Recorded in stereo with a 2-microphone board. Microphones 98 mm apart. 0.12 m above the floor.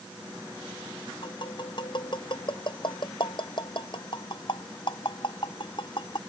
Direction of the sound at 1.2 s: 55° left (ahead or behind).